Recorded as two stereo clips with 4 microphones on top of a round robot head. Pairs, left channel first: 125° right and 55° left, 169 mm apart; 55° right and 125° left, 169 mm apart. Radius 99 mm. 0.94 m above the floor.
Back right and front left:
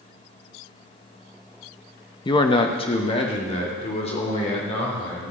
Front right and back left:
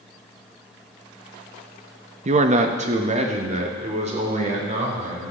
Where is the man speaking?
170° left, 0.9 m; by 5.3 s straight behind, 4.5 m.